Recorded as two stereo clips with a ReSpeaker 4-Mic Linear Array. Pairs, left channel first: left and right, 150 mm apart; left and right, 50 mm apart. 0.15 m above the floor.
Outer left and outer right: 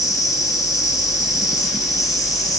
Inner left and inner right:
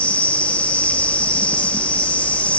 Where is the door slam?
No door slam in this recording.